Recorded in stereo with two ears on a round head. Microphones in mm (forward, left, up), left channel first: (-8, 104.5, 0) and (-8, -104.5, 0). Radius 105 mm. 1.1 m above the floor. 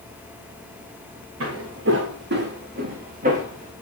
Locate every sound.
1.4 s footsteps: 60° right (ahead or behind), 3 m; by 3.7 s 30° right (ahead or behind), 3 m